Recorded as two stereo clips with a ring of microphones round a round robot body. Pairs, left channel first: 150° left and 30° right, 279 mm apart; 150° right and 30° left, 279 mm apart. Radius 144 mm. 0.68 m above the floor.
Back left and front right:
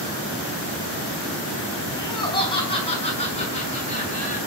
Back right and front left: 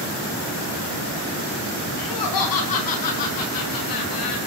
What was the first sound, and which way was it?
Laughter, 135° right.